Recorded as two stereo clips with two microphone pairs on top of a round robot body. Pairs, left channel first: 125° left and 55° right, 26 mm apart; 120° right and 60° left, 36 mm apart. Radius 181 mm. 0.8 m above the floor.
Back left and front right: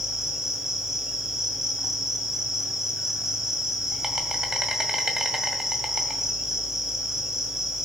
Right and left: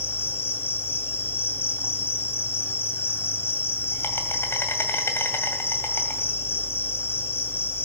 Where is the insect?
130° right, 2.0 m.